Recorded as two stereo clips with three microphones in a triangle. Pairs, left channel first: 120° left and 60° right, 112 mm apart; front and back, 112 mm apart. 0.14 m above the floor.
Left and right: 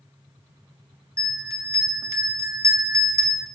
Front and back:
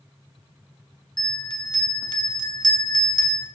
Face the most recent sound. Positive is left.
turn(degrees=-15)